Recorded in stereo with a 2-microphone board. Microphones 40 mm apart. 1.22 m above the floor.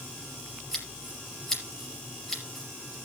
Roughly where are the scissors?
Centre.